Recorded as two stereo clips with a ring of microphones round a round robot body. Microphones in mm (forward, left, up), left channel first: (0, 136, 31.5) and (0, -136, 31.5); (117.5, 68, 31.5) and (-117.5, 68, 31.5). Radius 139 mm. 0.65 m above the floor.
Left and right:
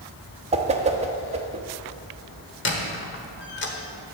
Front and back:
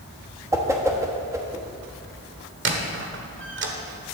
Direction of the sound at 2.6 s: 140° left.